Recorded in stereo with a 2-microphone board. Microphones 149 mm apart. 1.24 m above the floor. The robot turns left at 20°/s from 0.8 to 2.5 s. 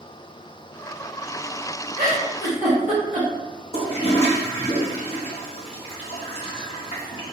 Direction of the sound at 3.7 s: 40° left (ahead or behind).